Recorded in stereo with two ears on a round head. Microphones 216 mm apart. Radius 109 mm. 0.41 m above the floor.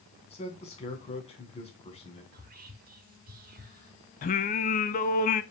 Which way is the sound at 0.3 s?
25° left (ahead or behind).